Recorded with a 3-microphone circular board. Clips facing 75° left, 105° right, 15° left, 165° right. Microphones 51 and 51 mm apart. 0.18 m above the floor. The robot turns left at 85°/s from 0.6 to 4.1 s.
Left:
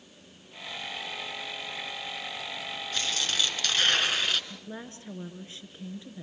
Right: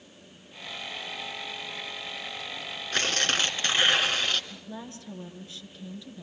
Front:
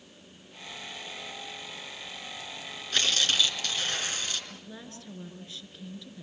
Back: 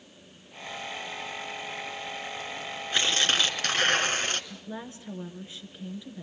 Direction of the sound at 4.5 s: 130° left.